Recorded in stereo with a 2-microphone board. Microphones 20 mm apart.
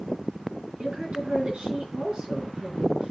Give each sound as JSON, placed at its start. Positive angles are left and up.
{"t": 0.8, "sound": "a woman speaking", "side_deg": -75, "distance_m": 4.5}